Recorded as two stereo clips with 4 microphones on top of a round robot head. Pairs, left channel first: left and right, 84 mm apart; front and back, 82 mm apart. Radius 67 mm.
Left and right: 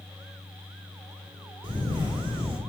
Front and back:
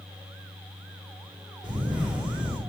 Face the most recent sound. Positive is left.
turn(degrees=-100)